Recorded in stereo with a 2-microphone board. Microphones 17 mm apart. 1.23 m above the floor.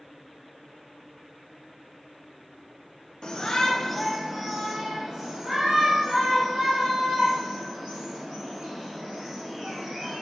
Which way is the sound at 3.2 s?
50° left (ahead or behind).